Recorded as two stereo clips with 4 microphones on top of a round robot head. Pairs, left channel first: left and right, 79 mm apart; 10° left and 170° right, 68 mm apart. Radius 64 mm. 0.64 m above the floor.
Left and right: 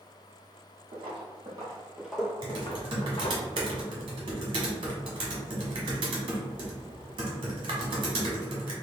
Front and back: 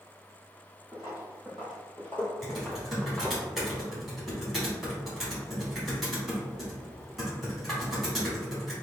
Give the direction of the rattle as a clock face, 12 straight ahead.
No rattle in this recording.